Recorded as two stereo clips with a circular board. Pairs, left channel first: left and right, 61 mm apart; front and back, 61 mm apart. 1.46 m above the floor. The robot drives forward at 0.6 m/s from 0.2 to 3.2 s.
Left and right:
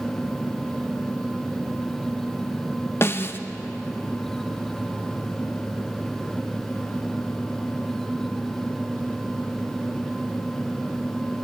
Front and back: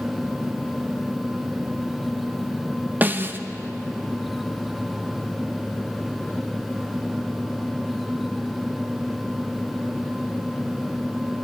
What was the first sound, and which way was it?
A snare drum, 130° left.